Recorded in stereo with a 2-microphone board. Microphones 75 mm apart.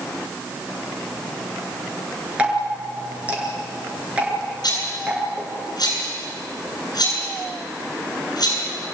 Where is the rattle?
60° left (ahead or behind), 8.5 m.